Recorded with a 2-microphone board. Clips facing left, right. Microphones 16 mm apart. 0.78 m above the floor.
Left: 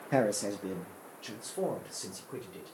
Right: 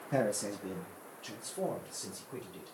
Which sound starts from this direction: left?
A man speaking, at 0.1 s.